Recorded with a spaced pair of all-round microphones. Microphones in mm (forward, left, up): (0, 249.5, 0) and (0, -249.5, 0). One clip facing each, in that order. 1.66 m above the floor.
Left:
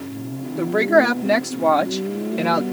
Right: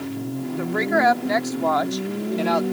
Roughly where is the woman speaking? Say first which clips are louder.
Left 6 dB; left.